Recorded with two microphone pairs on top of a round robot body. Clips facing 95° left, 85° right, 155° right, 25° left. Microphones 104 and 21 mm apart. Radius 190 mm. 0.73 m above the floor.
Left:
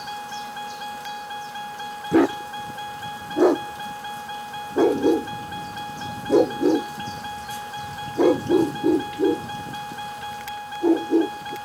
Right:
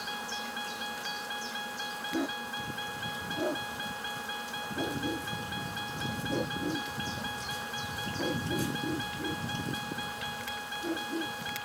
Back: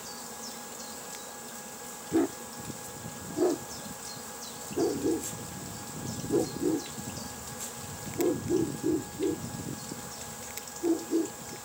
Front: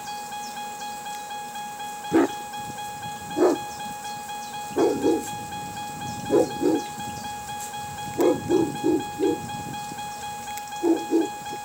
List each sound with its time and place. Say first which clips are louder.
0.0 s a vehicle: left 7 dB, front 9 dB; 45° left
2.1 s a dog barking: left 16 dB, front 7 dB; 75° left